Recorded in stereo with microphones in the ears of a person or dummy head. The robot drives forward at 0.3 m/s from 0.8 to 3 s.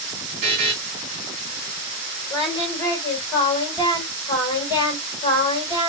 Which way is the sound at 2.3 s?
25° left (ahead or behind).